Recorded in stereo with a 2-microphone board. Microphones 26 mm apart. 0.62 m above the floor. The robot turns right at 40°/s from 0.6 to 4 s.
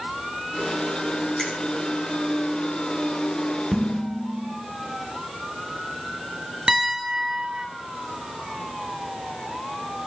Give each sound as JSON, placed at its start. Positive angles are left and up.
{"t": 1.4, "sound": "a finger snap", "side_deg": 25, "distance_m": 2.0}
{"t": 3.7, "sound": "dishes clattering", "side_deg": -40, "distance_m": 1.0}
{"t": 6.7, "sound": "a piano", "side_deg": -35, "distance_m": 1.1}